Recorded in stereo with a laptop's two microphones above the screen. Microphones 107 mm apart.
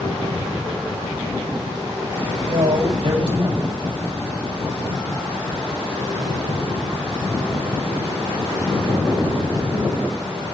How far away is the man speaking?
About 4.5 m.